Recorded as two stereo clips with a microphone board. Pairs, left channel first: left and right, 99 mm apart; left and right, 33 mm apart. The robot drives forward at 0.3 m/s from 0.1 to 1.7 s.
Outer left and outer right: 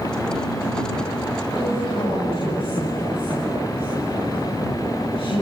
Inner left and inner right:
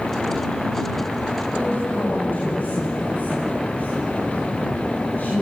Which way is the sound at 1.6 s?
55° left (ahead or behind).